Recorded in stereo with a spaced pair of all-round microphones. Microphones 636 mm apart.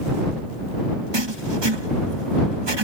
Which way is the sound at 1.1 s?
40° right (ahead or behind).